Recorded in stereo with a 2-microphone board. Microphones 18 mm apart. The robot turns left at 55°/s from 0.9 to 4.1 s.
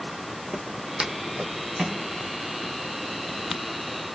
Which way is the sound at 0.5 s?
45° right (ahead or behind).